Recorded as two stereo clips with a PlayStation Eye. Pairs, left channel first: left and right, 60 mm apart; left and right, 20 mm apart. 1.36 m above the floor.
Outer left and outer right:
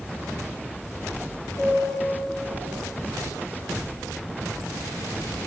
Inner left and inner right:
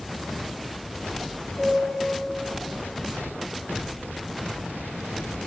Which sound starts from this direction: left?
A piano, at 1.6 s.